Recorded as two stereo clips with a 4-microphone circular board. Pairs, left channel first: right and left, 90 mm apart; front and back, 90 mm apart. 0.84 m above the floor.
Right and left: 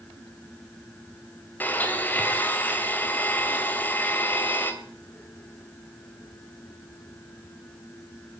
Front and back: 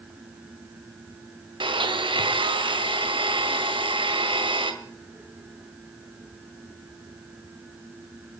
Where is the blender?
160° right, 1.9 m.